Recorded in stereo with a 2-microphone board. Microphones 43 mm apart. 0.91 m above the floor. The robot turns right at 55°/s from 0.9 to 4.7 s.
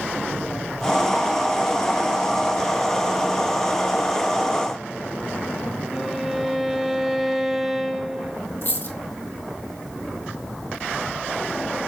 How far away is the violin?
About 0.8 m.